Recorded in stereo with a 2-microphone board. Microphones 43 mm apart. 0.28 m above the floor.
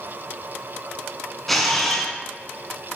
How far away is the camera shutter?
About 0.5 m.